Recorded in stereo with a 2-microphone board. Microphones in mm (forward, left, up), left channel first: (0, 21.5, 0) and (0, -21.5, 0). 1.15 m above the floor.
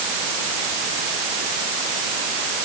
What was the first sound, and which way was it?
Only background noise.